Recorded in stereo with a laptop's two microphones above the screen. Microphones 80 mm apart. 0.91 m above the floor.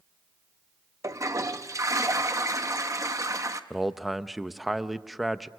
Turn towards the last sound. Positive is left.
turn(degrees=0)  # may be behind; listen again after turning